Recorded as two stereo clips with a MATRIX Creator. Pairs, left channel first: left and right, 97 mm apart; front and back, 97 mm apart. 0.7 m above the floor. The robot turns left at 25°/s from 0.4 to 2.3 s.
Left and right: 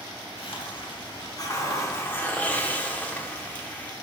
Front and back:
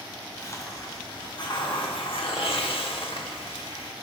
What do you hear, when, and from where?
0.4 s a hiss: 65° left, 1.1 m; by 3.9 s 15° left, 1.1 m